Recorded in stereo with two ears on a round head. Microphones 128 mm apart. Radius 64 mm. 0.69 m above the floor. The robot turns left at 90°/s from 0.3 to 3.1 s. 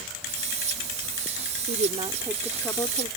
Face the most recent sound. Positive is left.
turn(degrees=125)